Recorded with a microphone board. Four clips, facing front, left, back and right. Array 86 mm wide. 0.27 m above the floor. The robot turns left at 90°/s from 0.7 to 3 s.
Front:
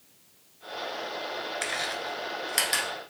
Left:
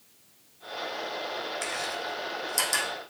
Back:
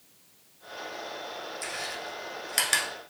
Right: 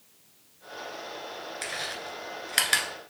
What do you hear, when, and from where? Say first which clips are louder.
1.6 s chewing: left 3 dB, front 4 dB; 5° right, 1.1 m; by 2.9 s 115° right, 1.1 m